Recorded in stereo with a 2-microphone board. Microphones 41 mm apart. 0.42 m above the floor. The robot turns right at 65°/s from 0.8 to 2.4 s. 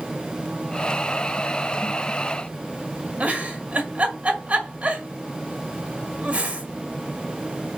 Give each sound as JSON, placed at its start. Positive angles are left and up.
{"t": 3.2, "sound": "a giggle", "side_deg": -40, "distance_m": 1.7}